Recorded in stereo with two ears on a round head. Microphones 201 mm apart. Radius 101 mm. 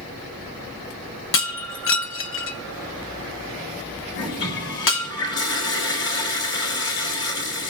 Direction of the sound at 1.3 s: 60° left (ahead or behind).